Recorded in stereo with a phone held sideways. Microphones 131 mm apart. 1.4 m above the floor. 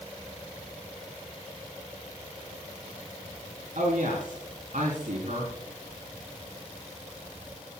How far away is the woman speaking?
About 3.5 m.